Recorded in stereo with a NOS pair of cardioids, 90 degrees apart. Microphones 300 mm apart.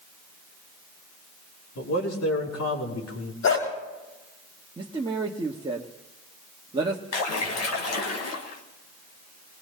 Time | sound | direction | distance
1.8 | a man speaking | 60° left | 5 m
3.4 | a dog barking | 65° left | 6 m
4.8 | a man speaking | 15° right | 1.4 m
7.1 | a splash | 60° left | 2.5 m